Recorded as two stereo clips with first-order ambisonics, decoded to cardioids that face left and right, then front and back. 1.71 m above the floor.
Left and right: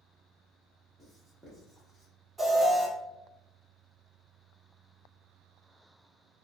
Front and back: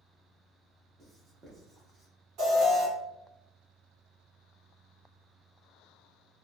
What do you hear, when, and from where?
1.0 s writing: 155° right, 0.9 m
2.4 s an alarm: 160° right, 1.7 m